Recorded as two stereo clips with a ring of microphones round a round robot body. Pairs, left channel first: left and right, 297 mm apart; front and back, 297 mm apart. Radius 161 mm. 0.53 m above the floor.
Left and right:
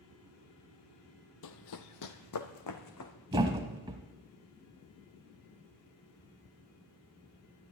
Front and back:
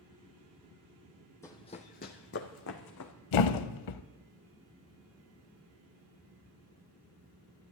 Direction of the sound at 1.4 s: 80° left.